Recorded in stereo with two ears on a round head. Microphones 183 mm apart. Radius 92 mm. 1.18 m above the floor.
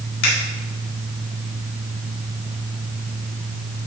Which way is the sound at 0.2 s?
50° left (ahead or behind).